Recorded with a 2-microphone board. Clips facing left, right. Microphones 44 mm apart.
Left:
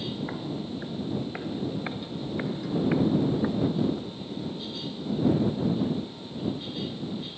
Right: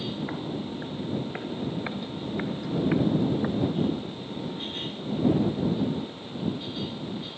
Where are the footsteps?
5° right (ahead or behind).